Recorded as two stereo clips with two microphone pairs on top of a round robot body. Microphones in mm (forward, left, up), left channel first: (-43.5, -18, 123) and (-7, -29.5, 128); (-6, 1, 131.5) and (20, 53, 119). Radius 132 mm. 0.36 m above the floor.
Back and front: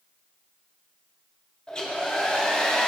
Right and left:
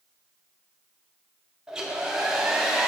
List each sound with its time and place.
1.7 s a hair dryer: 125° left, 1.5 m